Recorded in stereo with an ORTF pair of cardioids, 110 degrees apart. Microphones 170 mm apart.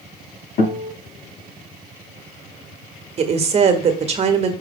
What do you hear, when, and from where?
0.6 s a guitar: 70° left, 5.5 m
3.2 s a woman speaking: 40° right, 1.5 m